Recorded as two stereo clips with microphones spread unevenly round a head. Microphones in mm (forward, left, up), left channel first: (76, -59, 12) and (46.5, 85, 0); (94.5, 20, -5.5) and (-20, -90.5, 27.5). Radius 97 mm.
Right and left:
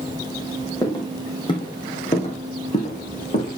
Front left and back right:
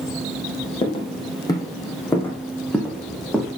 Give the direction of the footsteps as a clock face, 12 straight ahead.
1 o'clock.